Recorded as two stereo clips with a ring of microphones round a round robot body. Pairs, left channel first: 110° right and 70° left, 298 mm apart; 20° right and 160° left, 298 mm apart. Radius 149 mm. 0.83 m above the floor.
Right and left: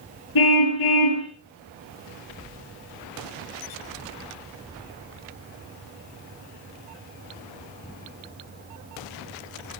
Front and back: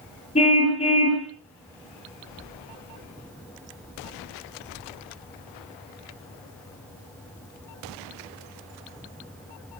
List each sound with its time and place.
0.3 s a car horn: 95° right, 7.5 m